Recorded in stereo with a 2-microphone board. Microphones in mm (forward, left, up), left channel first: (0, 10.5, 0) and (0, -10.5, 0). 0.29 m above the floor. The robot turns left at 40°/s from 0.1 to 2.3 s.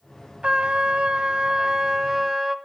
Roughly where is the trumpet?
Right.